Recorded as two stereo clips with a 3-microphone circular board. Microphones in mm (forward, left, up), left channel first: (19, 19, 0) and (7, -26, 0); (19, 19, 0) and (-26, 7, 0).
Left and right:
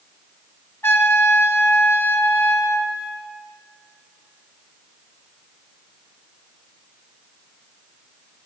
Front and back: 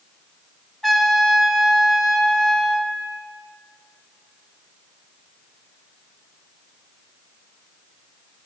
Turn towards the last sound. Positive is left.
turn(degrees=95)